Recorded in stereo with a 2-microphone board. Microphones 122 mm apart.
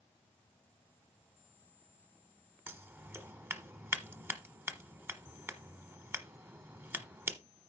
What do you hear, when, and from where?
2.7 s scissors: 20° right (ahead or behind), 1.1 m